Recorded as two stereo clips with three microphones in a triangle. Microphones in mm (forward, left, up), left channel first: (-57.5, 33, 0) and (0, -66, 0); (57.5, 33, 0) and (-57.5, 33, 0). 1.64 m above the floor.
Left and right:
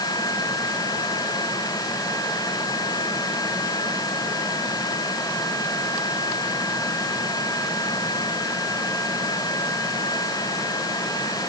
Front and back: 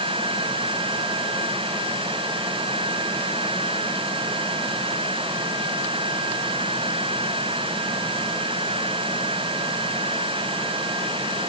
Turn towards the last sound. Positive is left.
No sound to turn to.